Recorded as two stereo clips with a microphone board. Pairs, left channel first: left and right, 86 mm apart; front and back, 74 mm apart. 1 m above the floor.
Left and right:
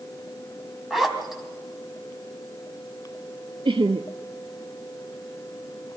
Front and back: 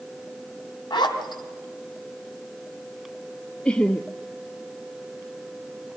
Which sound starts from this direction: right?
Laughter, at 3.6 s.